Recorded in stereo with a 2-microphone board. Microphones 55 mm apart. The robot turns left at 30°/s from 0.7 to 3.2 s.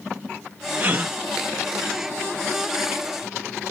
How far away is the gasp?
About 0.6 m.